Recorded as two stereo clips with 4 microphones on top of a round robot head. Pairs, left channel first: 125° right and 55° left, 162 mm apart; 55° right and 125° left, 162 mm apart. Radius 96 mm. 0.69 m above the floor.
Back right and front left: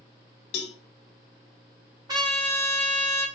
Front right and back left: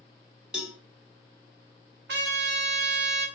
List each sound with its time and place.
0.5 s a cowbell: 150° right, 0.7 m
2.1 s a trumpet: 120° left, 1.2 m